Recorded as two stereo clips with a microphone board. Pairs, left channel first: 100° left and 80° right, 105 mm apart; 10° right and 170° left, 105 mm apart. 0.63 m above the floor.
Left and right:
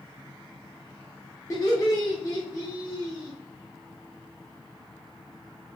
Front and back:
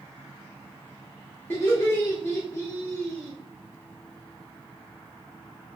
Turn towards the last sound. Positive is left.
turn(degrees=50)